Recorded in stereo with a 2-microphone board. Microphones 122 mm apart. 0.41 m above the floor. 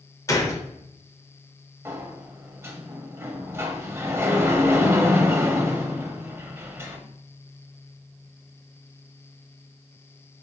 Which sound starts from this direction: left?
A gunshot, at 0.3 s.